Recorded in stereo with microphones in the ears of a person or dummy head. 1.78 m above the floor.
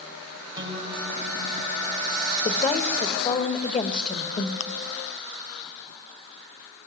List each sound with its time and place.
0.6 s a guitar: 20° right (ahead or behind), 5 m
2.5 s a woman speaking: 25° left (ahead or behind), 2.0 m
4.6 s chewing: 45° left (ahead or behind), 0.6 m